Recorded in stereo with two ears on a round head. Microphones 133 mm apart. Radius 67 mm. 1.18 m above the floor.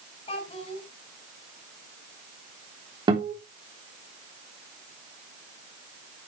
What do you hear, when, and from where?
0.3 s a child speaking: 40° left (ahead or behind), 5.5 m
3.1 s a guitar: 35° right (ahead or behind), 3.5 m